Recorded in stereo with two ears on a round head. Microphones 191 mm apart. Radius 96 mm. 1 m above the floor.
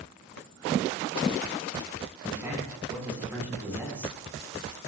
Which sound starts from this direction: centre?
A man speaking, at 2.2 s.